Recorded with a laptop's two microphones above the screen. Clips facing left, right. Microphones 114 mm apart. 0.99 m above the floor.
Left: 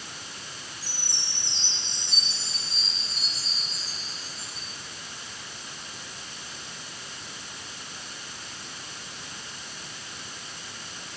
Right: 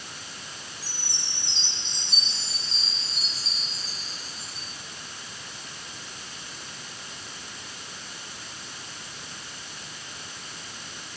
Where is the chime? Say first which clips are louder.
Even; 15° right (ahead or behind), 7.5 m.